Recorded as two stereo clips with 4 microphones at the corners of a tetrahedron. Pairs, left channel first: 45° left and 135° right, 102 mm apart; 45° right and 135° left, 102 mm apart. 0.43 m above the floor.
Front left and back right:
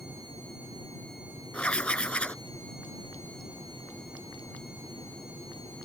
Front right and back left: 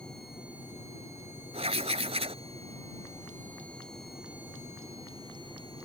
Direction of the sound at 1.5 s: 125° left.